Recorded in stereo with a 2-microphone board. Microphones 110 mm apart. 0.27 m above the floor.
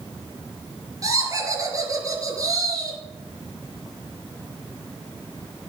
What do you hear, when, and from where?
1.0 s laughter: 35° right (ahead or behind), 5 m